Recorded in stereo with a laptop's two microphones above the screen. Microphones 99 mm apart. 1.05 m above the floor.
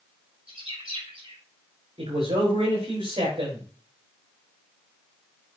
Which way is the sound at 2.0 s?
75° right (ahead or behind).